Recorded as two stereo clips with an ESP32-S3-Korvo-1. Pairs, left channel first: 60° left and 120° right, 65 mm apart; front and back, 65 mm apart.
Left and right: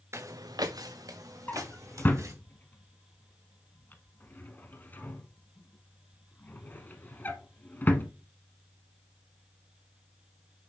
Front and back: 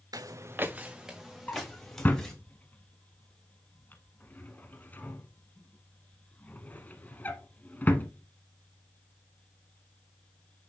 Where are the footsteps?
170° right, 0.8 m; by 2.3 s 80° right, 3 m.